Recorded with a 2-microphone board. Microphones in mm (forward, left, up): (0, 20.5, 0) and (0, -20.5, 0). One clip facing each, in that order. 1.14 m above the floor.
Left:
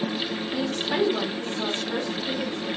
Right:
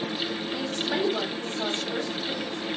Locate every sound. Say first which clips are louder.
0.5 s a woman speaking: left 3 dB; 25° left (ahead or behind), 3.5 m